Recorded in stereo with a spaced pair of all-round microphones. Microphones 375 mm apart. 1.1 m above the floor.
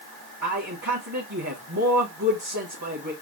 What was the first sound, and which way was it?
A man speaking, 50° right (ahead or behind).